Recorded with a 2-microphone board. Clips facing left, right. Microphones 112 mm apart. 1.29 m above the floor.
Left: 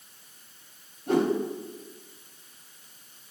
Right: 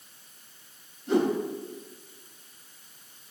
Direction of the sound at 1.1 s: 50° left (ahead or behind).